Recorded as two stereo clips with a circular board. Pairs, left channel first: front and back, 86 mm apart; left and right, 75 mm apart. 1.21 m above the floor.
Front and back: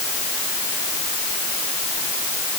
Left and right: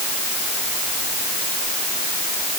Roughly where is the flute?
No flute in this recording.